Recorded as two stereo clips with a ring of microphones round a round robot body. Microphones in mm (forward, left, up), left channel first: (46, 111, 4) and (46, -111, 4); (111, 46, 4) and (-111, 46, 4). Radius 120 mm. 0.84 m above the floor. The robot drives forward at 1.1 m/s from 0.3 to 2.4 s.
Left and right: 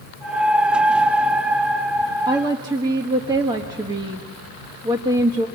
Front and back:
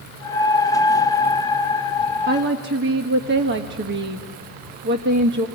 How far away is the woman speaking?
About 1.3 m.